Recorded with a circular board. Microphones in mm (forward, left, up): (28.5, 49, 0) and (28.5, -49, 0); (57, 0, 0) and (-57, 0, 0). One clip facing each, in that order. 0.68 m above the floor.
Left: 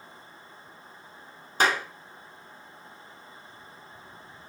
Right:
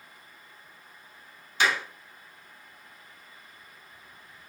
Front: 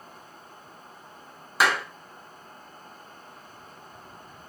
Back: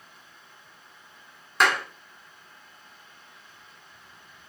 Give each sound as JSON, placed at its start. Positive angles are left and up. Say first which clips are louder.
{"t": 1.6, "sound": "a clap", "louder": "left 2 dB, even", "azimuth_deg": 85, "distance_m": 0.9}